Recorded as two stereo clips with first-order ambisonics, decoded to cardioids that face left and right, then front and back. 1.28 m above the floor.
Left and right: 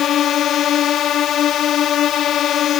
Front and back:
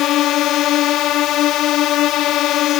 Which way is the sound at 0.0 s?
40° left.